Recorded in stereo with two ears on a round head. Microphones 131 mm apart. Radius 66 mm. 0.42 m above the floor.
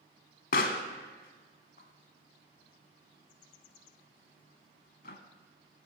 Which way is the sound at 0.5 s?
65° left (ahead or behind).